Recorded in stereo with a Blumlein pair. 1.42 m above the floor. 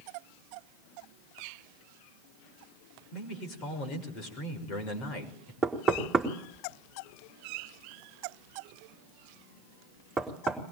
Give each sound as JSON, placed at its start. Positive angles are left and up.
{"t": 3.1, "sound": "a man speaking", "azimuth_deg": 35, "distance_m": 6.0}
{"t": 5.6, "sound": "knocking", "azimuth_deg": -10, "distance_m": 4.0}